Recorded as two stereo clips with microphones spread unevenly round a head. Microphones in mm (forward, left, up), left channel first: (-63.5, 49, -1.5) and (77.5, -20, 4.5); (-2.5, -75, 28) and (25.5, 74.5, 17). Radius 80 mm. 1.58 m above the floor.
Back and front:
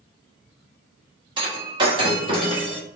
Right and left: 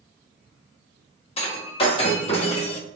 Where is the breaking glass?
70° right, 1.2 m.